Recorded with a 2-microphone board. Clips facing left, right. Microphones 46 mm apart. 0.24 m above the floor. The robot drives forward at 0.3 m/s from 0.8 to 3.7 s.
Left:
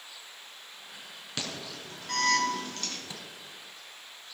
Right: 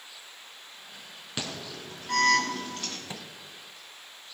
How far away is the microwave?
About 1.6 m.